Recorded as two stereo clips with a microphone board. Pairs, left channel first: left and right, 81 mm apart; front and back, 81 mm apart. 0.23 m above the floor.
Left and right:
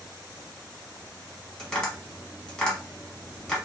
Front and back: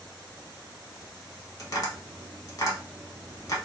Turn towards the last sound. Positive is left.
turn(degrees=15)